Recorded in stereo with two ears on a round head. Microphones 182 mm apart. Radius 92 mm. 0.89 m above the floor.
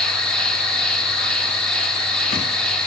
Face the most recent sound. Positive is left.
turn(degrees=5)  # may be behind; listen again after turning